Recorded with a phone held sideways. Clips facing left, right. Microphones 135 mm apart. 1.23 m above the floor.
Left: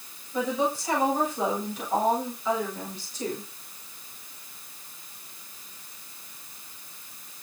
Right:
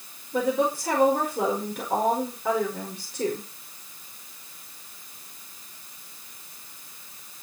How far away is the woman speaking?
About 5 m.